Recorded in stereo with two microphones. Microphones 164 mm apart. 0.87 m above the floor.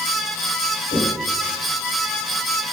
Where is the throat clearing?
No throat clearing in this recording.